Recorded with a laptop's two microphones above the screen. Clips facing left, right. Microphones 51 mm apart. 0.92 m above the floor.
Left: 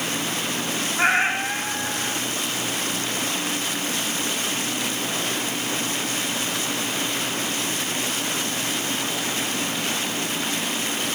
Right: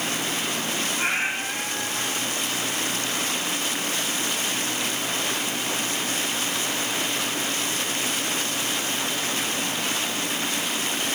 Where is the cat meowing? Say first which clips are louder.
Left 8 dB; 80° left, 1.9 m.